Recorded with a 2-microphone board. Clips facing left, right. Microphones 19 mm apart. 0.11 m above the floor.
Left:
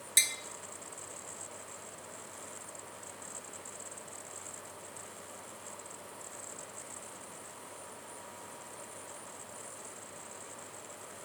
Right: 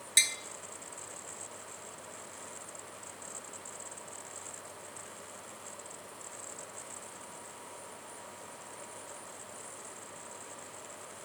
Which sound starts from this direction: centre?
Tapping, at 0.2 s.